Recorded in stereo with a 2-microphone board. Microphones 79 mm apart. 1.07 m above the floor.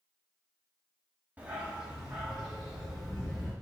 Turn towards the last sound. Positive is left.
turn(degrees=5)  # may be behind; listen again after turning